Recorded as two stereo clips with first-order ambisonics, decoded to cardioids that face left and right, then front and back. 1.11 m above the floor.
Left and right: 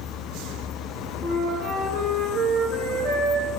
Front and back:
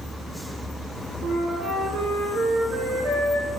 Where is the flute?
160° right, 1.1 m.